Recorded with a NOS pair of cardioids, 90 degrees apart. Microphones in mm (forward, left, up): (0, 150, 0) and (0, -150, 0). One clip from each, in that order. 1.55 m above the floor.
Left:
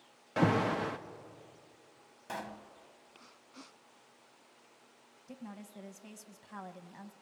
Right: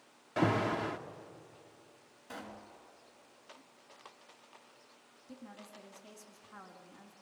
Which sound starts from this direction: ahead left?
A woman speaking, at 5.3 s.